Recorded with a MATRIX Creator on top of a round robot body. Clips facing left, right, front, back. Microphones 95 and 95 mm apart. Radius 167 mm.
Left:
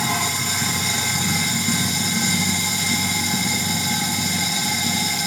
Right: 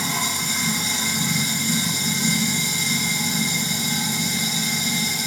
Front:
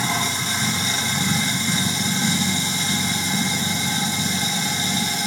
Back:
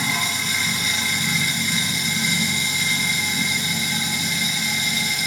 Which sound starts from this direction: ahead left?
Running water, at 0.0 s.